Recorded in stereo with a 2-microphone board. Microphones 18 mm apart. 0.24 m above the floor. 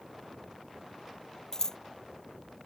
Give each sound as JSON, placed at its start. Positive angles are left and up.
{"t": 1.5, "sound": "scissors", "side_deg": 35}